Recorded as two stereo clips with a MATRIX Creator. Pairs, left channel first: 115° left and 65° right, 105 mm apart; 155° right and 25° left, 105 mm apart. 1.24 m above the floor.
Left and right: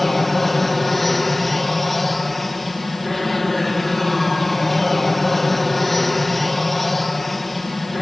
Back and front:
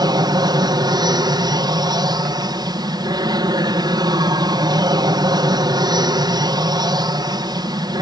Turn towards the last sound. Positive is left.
turn(degrees=25)